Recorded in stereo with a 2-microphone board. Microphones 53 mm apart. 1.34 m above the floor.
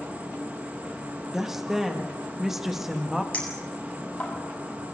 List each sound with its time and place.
0.0 s an insect: 30° right (ahead or behind), 3.5 m
1.3 s a woman speaking: 5° right (ahead or behind), 2 m
3.3 s a clink: 25° left (ahead or behind), 8 m